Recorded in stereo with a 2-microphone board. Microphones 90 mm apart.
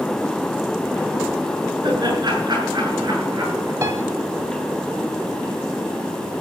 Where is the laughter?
50° right (ahead or behind), 7 m; by 3.7 s 45° right (ahead or behind), 9 m.